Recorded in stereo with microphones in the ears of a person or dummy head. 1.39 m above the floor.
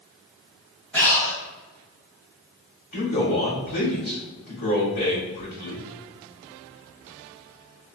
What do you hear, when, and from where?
0.9 s breathing: 15° left (ahead or behind), 1.7 m
2.9 s a man speaking: 50° left (ahead or behind), 1.9 m